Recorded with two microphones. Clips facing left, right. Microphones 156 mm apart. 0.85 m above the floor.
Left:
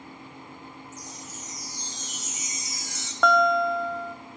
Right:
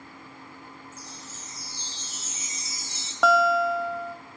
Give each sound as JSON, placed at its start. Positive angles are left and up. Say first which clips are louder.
{"t": 0.9, "sound": "a chime", "louder": "left 3 dB", "side_deg": -30, "distance_m": 3.0}
{"t": 3.2, "sound": "a guitar", "louder": "even", "side_deg": -5, "distance_m": 1.7}